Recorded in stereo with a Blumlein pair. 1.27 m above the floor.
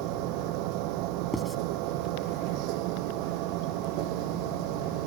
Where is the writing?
5° left.